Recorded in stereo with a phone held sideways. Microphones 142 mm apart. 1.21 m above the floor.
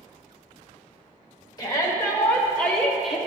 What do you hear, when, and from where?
1.6 s a shout: 30° left (ahead or behind), 1.9 m; by 3.2 s 5° right (ahead or behind), 1.5 m